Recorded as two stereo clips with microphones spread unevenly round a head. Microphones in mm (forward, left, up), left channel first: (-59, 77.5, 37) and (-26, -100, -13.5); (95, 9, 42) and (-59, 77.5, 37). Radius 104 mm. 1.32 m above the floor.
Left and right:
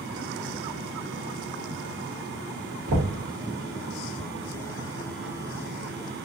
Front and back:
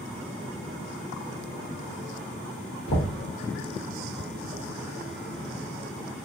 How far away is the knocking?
About 1.2 m.